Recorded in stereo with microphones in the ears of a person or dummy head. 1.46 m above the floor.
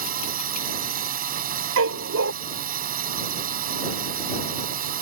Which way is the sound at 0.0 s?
45° right (ahead or behind).